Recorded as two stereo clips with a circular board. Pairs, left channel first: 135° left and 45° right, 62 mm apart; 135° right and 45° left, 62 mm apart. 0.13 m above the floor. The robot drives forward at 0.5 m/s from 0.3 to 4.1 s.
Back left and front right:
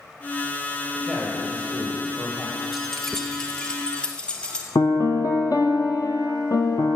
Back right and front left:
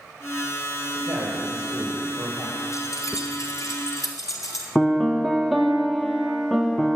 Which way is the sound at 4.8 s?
140° left.